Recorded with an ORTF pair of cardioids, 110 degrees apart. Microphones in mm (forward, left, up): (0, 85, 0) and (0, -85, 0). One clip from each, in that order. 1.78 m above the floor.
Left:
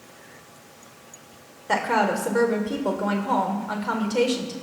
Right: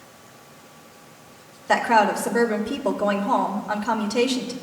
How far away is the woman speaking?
About 1.7 m.